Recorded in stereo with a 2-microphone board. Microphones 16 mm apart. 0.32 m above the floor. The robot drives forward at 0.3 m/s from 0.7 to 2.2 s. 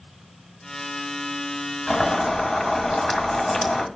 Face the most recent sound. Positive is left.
turn(degrees=55)  # may be behind; listen again after turning